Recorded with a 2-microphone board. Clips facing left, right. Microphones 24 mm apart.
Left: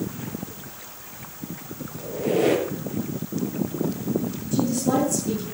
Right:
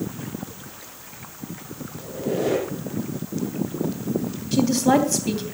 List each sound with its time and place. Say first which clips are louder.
2.0 s a squeak: left 3 dB; 80° left, 4.5 m
4.5 s a woman speaking: right 4 dB; 45° right (ahead or behind), 2.5 m